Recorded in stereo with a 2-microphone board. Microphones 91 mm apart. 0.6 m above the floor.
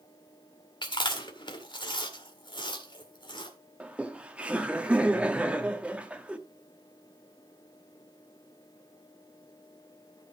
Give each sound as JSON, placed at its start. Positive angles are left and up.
{"t": 0.8, "sound": "chewing", "side_deg": 55, "distance_m": 1.9}
{"t": 3.8, "sound": "laughter", "side_deg": -15, "distance_m": 1.1}